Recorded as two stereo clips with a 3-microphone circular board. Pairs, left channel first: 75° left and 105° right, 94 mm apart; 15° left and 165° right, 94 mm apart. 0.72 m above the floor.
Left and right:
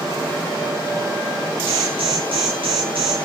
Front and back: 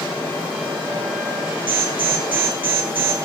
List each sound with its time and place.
1.7 s an alarm: 95° right, 7 m